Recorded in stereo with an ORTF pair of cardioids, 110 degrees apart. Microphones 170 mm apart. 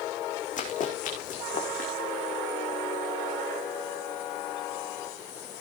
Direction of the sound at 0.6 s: 50° left.